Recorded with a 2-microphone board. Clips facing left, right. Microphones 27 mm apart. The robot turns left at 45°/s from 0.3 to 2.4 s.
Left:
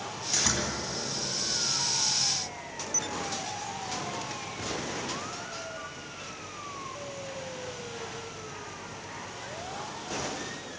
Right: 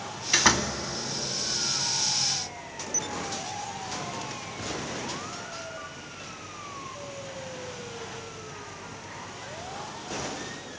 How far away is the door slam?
About 2 m.